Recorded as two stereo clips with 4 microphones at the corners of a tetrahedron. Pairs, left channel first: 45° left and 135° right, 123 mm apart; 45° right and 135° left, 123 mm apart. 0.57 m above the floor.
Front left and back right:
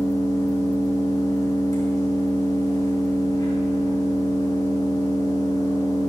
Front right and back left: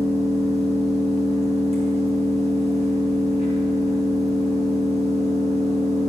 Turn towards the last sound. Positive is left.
turn(degrees=-15)